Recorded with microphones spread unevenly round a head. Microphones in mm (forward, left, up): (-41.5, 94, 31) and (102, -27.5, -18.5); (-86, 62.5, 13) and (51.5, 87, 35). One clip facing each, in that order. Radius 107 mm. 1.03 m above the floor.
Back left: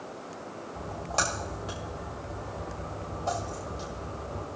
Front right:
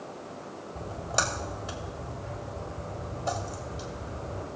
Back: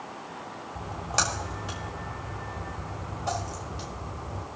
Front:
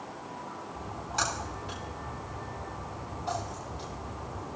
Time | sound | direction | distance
0.8 | a splash | 120° right | 1.5 m